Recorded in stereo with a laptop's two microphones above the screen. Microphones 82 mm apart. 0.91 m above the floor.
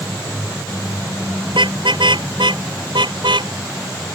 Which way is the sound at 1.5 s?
80° right.